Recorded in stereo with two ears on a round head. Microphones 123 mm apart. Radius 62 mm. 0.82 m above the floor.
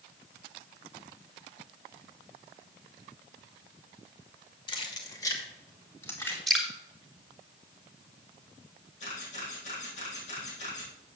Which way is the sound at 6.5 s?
Centre (ahead or behind).